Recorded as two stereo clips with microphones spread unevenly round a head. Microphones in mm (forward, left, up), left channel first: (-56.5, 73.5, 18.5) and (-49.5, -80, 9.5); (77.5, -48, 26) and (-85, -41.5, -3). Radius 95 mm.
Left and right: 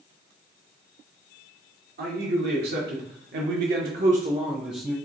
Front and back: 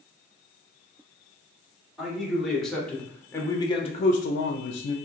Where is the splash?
I don't hear a splash.